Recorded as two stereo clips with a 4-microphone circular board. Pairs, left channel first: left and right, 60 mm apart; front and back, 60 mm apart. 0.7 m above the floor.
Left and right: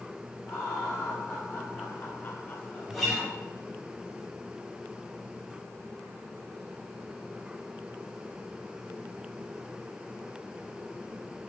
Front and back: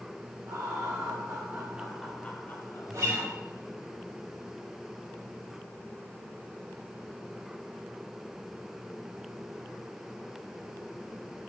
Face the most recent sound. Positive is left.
turn(degrees=180)